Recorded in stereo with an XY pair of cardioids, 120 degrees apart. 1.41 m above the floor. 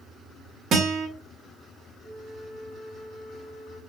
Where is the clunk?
I don't hear a clunk.